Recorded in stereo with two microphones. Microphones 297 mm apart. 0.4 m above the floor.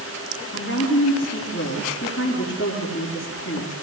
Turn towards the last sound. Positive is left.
turn(degrees=50)  # may be behind; listen again after turning